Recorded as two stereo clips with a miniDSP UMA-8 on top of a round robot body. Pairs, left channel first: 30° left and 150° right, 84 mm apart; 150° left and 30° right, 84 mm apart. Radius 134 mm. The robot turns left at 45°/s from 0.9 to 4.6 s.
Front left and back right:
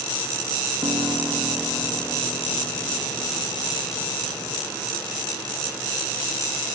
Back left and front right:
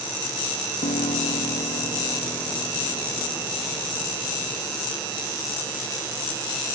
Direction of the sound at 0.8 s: 155° left.